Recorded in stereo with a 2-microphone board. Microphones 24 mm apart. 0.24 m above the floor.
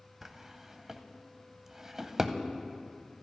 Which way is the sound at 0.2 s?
20° right (ahead or behind).